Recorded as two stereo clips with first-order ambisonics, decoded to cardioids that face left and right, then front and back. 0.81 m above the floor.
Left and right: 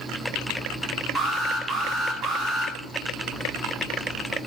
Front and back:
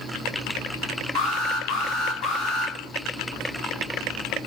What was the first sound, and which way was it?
An alarm, 50° right.